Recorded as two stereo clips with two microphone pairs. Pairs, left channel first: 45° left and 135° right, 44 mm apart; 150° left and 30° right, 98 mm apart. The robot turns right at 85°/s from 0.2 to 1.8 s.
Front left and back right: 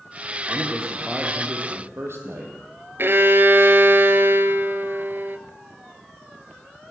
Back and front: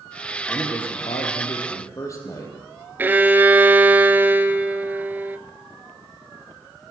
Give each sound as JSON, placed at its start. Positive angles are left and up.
{"t": 0.5, "sound": "a man speaking", "azimuth_deg": 90, "distance_m": 5.5}
{"t": 3.0, "sound": "a violin", "azimuth_deg": -105, "distance_m": 1.2}